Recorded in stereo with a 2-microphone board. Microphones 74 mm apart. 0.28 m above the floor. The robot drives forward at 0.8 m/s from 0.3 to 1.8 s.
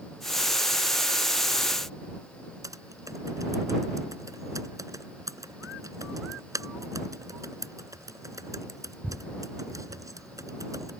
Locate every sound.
2.6 s typing on a keyboard: 55° right (ahead or behind)